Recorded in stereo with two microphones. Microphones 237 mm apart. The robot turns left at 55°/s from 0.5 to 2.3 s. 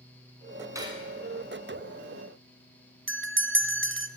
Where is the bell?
55° right (ahead or behind), 0.5 m.